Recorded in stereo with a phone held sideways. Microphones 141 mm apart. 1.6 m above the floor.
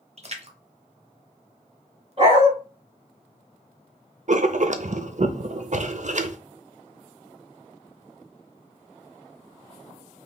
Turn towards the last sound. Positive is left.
turn(degrees=-55)  # may be behind; listen again after turning